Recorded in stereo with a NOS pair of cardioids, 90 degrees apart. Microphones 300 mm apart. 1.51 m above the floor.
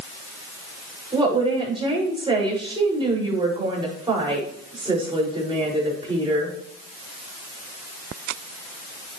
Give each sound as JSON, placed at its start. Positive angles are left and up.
{"t": 1.1, "sound": "a woman speaking", "azimuth_deg": -15, "distance_m": 6.5}